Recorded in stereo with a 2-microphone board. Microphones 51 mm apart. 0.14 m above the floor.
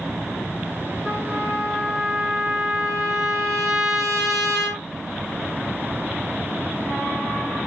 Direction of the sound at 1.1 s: Centre (ahead or behind).